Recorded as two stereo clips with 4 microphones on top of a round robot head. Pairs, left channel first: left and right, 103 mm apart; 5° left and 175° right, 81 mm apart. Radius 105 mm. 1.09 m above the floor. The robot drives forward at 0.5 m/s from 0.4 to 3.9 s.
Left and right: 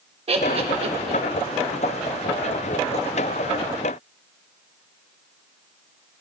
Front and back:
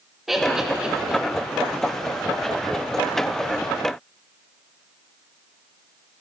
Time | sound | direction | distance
0.3 | laughter | 85° right | 1.6 m